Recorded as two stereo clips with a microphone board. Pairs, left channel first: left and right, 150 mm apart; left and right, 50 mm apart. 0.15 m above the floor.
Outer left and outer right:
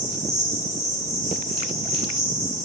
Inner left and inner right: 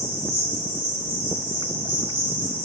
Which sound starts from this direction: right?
An insect, at 0.0 s.